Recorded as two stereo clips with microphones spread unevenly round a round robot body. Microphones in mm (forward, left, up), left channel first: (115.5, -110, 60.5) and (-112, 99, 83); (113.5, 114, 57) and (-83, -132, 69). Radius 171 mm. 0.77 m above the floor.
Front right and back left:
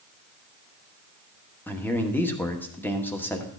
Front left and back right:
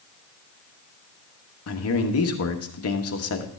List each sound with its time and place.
1.7 s a man speaking: 35° left, 1.3 m